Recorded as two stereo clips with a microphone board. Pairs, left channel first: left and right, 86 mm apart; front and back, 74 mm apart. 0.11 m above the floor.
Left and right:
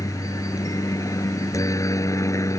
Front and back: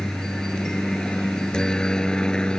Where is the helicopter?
80° left; by 2.6 s 75° left.